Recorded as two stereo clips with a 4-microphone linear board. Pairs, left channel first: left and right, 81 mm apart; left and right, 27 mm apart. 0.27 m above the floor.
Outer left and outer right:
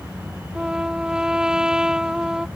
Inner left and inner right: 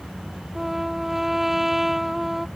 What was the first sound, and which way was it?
A trumpet, 10° right (ahead or behind).